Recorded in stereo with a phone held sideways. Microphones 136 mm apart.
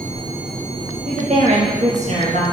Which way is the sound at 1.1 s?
55° right (ahead or behind).